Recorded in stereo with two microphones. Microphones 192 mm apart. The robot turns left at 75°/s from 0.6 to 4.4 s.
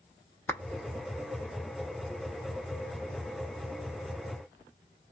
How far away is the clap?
About 0.6 m.